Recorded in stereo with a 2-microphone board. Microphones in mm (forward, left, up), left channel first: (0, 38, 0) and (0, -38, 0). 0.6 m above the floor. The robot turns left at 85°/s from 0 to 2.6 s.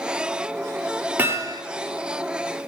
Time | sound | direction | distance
1.2 | hammering | 30° right | 3.5 m